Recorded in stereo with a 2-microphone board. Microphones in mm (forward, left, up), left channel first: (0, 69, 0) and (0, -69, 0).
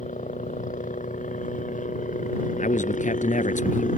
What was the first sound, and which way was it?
A helicopter, 60° left (ahead or behind).